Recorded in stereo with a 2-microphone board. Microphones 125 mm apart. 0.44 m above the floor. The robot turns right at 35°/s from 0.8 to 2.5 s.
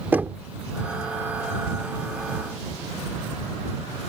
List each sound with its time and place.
0.1 s knocking: 15° right (ahead or behind)